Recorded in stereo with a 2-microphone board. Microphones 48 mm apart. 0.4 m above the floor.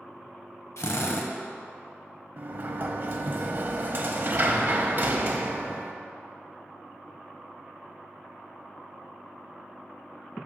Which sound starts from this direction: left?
A drill, at 0.8 s.